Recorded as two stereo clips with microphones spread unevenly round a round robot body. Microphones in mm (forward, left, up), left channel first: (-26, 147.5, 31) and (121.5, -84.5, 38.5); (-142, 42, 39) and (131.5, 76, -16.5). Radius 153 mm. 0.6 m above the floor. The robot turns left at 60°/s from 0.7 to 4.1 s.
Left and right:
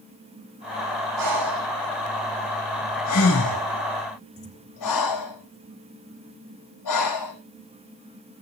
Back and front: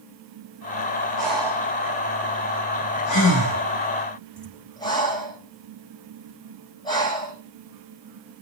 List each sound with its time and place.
1.2 s breathing: 70° right, 8.5 m; by 7.3 s 115° left, 8.5 m